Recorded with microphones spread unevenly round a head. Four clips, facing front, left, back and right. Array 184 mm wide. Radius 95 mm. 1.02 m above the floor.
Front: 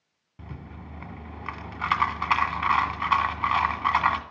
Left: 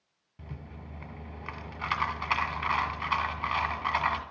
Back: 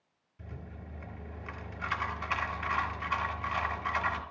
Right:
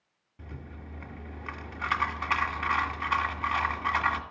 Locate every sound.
0.4 s a rattle: 10° left, 1.9 m